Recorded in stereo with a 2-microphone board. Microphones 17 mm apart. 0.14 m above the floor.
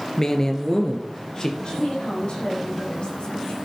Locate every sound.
0.2 s a man speaking: 25° left (ahead or behind), 2 m; by 1.5 s 35° left (ahead or behind), 3 m
1.6 s a woman speaking: 65° left (ahead or behind), 7 m